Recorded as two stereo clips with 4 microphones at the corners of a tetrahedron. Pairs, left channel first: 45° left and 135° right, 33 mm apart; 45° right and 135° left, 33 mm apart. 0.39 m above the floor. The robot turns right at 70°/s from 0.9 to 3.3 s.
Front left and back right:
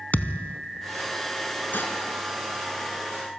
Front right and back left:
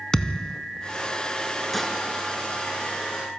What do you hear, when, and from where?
0.1 s a thud: 25° left, 0.6 m
1.7 s dishes clattering: 40° left, 3.5 m; by 1.9 s 55° left, 3.5 m